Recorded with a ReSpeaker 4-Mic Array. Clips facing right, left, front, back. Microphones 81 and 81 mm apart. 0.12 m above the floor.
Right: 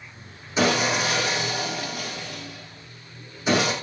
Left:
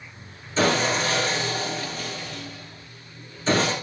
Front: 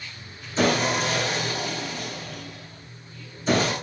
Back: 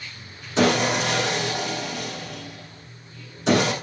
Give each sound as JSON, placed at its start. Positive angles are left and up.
{"t": 0.6, "sound": "sawing", "azimuth_deg": -165, "distance_m": 5.5}